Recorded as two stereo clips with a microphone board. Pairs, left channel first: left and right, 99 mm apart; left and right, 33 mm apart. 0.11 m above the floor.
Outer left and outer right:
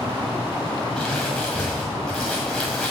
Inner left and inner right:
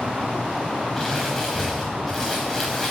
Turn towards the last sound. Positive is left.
turn(degrees=0)  # may be behind; listen again after turning